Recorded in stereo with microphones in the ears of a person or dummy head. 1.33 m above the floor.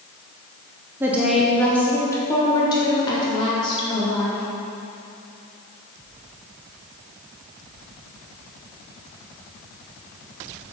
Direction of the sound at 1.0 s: 15° right (ahead or behind).